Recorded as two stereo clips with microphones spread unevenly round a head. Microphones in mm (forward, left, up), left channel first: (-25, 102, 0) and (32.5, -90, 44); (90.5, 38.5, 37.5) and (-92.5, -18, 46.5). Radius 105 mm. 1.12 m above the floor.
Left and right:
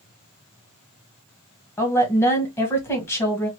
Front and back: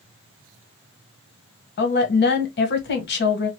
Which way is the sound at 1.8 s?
35° left.